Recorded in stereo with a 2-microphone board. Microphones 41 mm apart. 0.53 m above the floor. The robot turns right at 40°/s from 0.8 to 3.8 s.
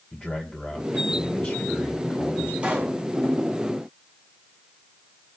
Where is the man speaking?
35° left, 3 m; by 2.5 s 105° left, 3 m.